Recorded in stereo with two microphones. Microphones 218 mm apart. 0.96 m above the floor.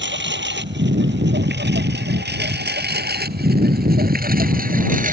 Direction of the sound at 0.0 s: 60° right (ahead or behind).